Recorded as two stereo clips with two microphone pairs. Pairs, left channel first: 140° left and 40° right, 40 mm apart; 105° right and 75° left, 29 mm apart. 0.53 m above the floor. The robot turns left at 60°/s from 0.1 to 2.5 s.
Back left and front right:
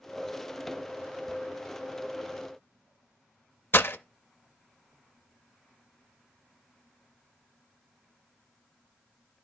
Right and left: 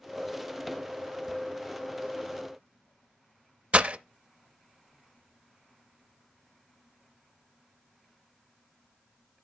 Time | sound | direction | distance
3.7 | breaking glass | 120° left | 0.5 m